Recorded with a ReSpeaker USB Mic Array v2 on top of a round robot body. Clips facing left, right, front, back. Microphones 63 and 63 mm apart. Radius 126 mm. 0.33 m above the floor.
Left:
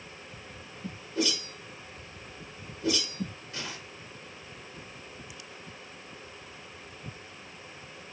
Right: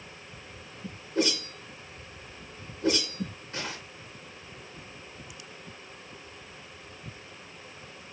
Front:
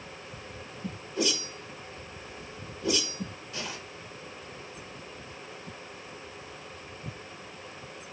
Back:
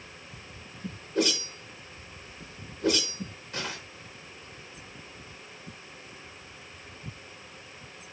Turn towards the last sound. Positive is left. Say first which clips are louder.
# right 3 dB, back 3 dB
turn(degrees=-135)